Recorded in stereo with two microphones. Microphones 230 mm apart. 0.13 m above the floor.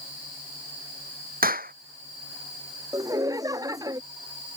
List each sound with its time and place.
1.4 s a clap: 40° right (ahead or behind)
2.9 s laughter: 15° right (ahead or behind)